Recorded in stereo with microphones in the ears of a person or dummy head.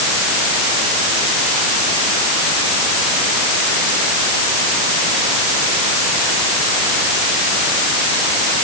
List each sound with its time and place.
Only background noise.